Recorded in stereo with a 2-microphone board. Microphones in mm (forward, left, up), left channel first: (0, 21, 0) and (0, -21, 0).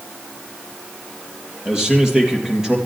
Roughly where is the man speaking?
Centre.